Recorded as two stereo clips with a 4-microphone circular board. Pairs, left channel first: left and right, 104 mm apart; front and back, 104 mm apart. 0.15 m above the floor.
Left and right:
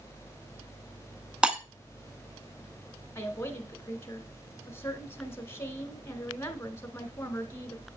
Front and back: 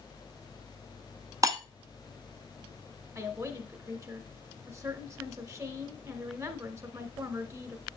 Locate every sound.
1.4 s breaking glass: 165° right, 0.9 m
3.1 s a woman speaking: 140° left, 1.4 m